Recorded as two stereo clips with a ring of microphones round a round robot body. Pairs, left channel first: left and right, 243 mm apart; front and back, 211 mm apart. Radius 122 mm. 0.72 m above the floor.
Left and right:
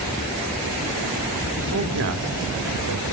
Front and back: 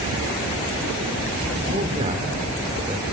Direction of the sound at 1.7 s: 125° right.